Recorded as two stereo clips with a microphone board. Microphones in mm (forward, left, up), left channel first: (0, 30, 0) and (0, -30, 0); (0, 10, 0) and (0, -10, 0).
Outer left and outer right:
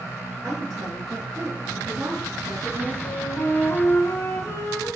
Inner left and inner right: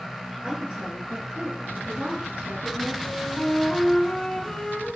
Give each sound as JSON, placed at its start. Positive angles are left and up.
{"t": 0.4, "sound": "a woman speaking", "side_deg": -55, "distance_m": 5.0}
{"t": 3.0, "sound": "a flute", "side_deg": 55, "distance_m": 2.5}